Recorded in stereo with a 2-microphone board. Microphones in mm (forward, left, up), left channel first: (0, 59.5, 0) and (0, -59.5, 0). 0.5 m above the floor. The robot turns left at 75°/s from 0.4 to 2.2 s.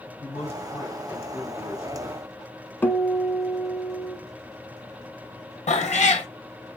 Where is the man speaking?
70° left, 3 m; by 2.3 s 65° right, 3 m.